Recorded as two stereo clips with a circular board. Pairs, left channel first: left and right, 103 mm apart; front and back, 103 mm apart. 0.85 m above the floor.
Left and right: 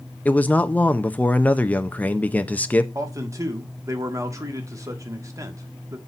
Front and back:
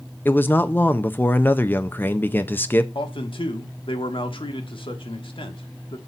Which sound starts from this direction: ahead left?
A man speaking, at 0.2 s.